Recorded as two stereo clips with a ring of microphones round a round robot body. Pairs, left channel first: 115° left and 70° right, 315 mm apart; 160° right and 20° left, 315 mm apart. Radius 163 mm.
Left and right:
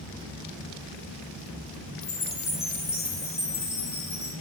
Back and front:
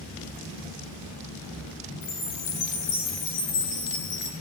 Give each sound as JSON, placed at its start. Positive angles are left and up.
{"t": 2.0, "sound": "a chime", "azimuth_deg": -165, "distance_m": 3.0}